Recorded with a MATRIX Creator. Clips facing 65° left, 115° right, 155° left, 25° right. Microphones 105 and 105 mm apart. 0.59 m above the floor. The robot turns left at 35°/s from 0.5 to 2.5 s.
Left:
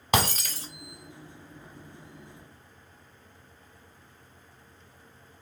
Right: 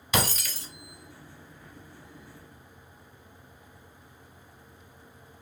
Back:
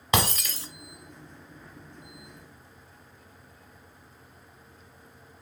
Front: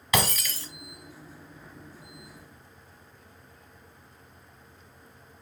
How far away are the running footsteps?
No running footsteps in this recording.